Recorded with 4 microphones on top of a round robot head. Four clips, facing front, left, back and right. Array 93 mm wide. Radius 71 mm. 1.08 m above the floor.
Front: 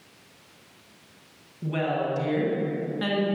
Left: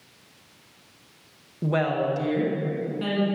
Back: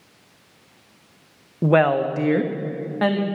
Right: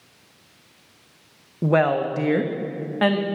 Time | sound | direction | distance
1.6 | a woman speaking | 160° right | 0.9 m